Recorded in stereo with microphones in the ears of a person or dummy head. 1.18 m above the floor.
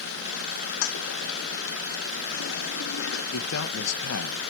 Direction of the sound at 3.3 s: 80° left.